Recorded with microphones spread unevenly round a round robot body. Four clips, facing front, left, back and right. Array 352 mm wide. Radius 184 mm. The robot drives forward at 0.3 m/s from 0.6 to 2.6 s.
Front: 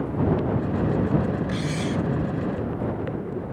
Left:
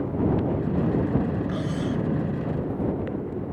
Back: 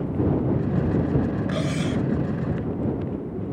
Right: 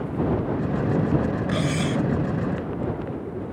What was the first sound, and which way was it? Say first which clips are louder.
Cutlery clinking: right 3 dB, back 1 dB; 135° right.